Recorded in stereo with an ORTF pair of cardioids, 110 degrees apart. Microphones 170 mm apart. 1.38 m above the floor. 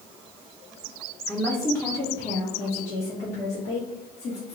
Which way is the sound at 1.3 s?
5° left.